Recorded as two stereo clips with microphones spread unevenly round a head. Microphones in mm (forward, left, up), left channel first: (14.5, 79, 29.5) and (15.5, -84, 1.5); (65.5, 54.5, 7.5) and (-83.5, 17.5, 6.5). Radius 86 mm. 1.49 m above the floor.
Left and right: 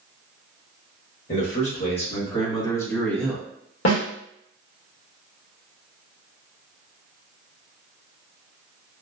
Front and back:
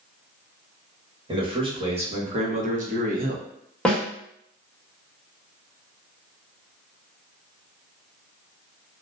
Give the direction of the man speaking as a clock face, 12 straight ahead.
8 o'clock.